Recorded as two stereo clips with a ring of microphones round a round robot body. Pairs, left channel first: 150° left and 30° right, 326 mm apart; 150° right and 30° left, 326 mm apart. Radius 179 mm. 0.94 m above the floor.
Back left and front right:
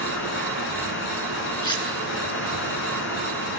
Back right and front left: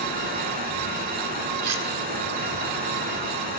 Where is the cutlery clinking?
70° left, 7.5 m.